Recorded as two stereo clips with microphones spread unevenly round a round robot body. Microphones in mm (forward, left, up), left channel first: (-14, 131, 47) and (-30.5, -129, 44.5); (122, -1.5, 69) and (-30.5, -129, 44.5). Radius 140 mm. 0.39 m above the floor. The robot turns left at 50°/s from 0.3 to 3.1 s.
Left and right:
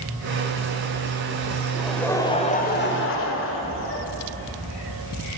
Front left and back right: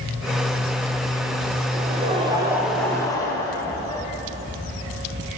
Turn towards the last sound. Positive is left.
turn(degrees=115)